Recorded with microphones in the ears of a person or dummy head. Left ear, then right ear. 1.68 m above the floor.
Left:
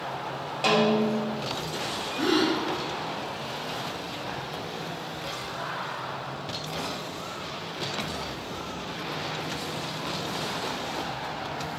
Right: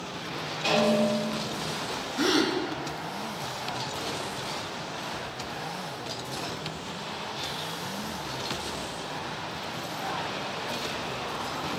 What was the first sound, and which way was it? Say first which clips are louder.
A snare drum: left 1 dB; 35° left (ahead or behind).